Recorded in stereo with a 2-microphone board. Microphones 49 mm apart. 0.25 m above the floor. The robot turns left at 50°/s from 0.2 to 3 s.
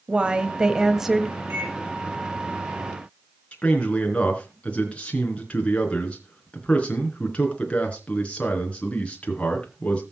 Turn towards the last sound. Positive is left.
turn(degrees=25)  # may be behind; listen again after turning